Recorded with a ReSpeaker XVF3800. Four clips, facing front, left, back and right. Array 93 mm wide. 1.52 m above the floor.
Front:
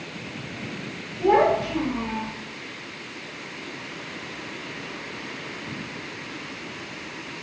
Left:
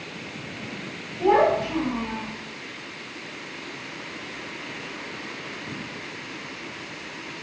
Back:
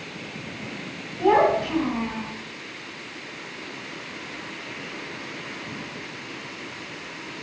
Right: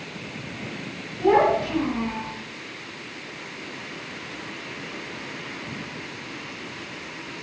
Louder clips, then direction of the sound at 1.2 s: Even, even; 165° left.